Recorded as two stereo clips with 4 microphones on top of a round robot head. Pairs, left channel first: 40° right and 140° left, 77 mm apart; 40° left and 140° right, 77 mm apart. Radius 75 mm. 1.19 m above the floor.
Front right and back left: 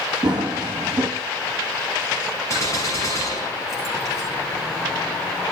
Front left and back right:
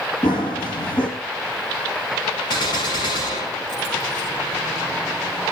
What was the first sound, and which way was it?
Running footsteps, 60° left.